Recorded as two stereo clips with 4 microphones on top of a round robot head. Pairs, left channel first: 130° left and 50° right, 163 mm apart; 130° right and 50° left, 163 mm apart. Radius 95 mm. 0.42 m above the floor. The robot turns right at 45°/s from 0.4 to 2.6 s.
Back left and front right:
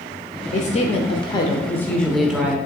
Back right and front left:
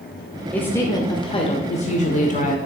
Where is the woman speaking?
150° left, 1.1 m; by 2.6 s 120° right, 1.1 m.